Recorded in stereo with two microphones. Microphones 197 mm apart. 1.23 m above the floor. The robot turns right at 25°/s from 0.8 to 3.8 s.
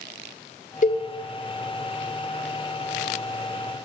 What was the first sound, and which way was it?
A cowbell, 40° left (ahead or behind).